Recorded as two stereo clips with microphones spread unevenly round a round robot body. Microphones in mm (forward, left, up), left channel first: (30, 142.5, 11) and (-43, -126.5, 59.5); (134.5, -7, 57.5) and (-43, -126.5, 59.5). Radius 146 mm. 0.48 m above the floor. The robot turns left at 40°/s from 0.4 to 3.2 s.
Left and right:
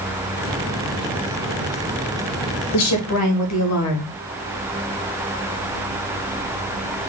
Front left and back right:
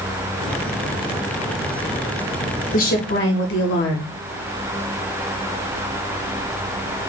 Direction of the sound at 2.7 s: 85° left.